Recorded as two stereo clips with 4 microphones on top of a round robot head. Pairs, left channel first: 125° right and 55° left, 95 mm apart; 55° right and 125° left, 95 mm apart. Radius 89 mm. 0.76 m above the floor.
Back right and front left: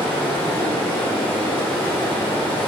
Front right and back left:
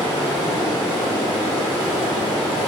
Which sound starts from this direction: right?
Running water, at 0.0 s.